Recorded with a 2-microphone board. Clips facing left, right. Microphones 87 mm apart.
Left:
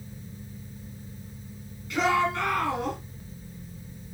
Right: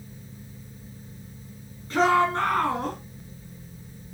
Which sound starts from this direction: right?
A shout, at 1.9 s.